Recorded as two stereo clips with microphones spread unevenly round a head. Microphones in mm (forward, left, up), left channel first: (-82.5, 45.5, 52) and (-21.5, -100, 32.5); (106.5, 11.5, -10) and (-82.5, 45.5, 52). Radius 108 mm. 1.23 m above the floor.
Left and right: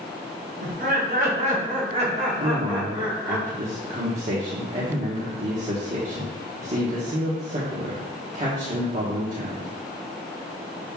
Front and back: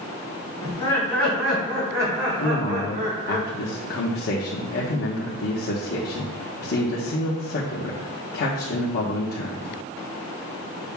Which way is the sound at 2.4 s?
20° right.